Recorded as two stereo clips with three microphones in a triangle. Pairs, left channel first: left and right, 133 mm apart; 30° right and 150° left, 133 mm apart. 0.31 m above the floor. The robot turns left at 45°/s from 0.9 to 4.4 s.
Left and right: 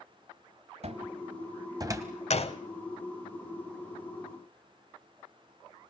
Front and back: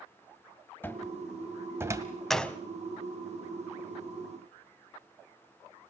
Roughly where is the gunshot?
Ahead left.